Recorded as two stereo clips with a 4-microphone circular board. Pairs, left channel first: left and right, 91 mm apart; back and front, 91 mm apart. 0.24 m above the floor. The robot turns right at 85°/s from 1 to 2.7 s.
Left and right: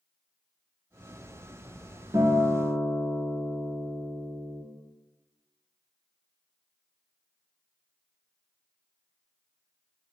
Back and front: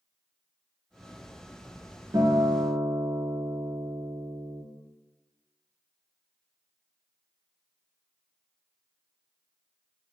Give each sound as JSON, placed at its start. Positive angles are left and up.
{"t": 2.1, "sound": "a guitar", "azimuth_deg": -45, "distance_m": 0.6}